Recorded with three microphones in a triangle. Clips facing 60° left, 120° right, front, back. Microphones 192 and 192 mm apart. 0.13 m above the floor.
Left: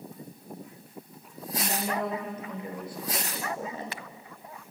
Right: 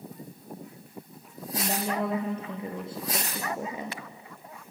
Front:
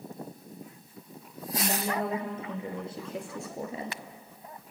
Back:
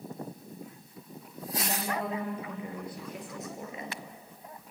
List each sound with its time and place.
1.5 s a woman speaking: 65° right, 3.5 m; by 4.0 s 40° right, 1.9 m